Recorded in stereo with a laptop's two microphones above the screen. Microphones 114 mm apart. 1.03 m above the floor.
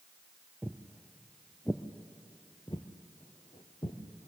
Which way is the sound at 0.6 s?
15° right (ahead or behind).